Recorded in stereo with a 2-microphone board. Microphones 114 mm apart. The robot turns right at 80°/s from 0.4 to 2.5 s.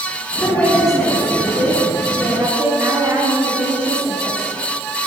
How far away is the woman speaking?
About 1.5 m.